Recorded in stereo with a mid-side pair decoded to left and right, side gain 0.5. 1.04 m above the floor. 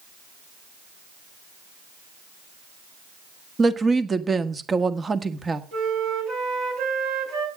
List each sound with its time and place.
3.6 s a woman speaking: 30° right, 1.5 m
5.7 s a flute: 70° right, 4.5 m